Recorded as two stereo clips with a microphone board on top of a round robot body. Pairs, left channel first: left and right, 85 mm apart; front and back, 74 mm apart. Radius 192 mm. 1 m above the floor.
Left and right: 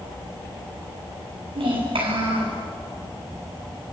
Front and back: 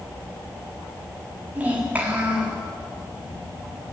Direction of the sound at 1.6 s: 110° right.